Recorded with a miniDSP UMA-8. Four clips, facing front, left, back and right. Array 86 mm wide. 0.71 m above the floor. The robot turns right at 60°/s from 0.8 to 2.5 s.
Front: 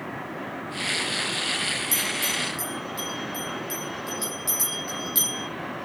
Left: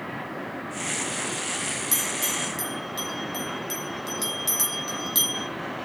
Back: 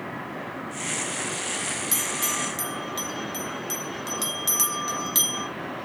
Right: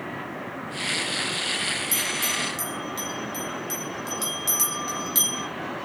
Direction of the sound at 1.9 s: 140° left.